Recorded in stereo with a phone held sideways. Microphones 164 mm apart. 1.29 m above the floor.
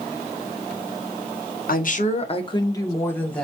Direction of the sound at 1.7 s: 60° left (ahead or behind).